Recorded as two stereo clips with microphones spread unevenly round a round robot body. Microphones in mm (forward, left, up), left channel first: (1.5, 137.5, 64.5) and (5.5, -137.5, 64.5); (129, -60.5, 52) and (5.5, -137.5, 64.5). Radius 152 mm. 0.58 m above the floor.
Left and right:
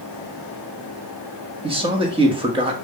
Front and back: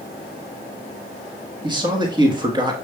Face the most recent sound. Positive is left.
turn(degrees=-135)